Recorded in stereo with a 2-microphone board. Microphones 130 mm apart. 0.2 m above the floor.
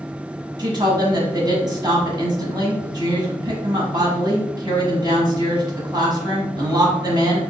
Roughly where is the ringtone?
I don't hear a ringtone.